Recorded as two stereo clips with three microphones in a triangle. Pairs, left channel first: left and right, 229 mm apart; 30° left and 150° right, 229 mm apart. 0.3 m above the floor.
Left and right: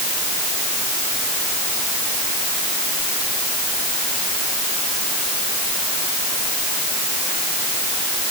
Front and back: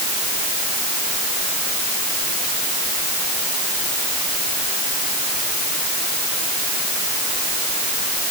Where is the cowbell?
I don't hear a cowbell.